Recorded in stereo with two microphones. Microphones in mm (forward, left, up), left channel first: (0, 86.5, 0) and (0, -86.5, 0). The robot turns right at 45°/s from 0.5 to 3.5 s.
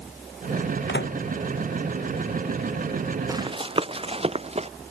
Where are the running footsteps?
20° right (ahead or behind); by 4.7 s 35° right (ahead or behind).